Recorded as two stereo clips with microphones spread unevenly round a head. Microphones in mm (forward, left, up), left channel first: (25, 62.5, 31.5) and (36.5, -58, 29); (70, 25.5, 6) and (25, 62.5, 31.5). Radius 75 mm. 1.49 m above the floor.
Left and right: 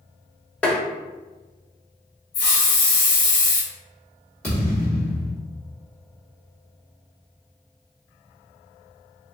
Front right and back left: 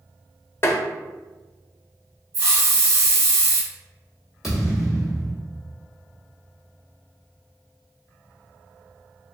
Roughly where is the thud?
Behind.